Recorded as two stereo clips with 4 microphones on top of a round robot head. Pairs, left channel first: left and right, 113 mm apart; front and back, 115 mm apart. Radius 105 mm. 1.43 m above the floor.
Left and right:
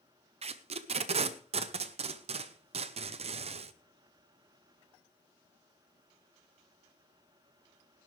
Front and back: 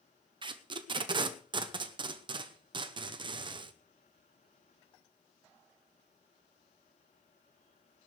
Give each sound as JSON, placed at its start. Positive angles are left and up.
{"t": 0.4, "sound": "tape being pulled", "azimuth_deg": -125, "distance_m": 0.9}